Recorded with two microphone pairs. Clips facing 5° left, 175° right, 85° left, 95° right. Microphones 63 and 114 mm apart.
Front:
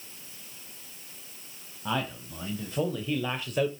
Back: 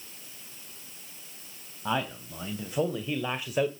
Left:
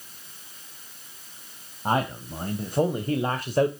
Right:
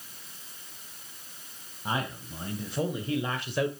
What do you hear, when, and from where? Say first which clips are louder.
1.9 s a man speaking: back 1 dB, left 7 dB; 110° left, 2.5 m